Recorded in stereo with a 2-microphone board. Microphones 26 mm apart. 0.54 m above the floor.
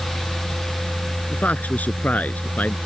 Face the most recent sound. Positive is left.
turn(degrees=80)